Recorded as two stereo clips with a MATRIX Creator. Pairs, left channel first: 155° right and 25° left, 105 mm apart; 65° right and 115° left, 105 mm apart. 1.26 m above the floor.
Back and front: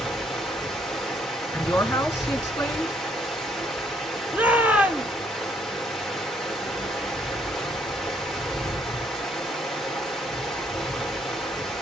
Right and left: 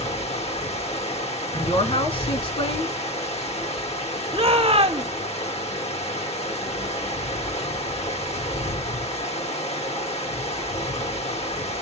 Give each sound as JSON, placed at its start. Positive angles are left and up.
{"t": 0.0, "sound": "running water", "azimuth_deg": -70, "distance_m": 1.6}
{"t": 1.5, "sound": "a woman speaking", "azimuth_deg": -90, "distance_m": 2.0}
{"t": 4.3, "sound": "a shout", "azimuth_deg": 95, "distance_m": 0.8}